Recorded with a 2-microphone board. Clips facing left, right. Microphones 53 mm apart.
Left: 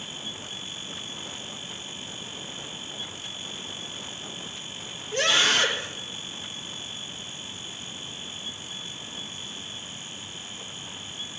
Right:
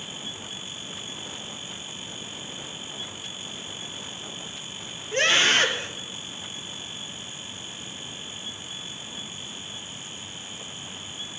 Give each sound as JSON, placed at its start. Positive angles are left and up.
{"t": 5.1, "sound": "a scream", "side_deg": -45, "distance_m": 3.0}